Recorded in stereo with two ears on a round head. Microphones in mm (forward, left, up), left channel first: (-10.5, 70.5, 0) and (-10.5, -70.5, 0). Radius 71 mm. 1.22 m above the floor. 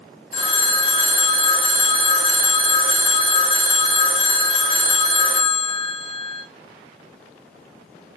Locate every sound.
0.3 s a phone ringing: 40° left (ahead or behind), 1.2 m